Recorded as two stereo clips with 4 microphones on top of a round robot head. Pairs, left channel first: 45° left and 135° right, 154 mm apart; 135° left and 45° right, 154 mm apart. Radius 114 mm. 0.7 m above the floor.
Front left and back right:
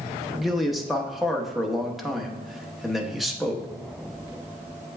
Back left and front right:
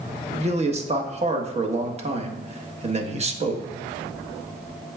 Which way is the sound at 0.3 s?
50° right.